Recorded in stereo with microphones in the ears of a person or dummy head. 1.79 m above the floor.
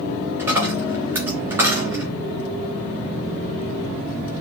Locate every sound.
0.4 s a dropped coin: 20° right (ahead or behind), 2.5 m